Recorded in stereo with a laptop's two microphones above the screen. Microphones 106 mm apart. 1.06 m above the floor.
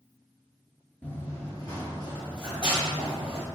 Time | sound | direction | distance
1.0 | running footsteps | 15° left (ahead or behind) | 1.0 m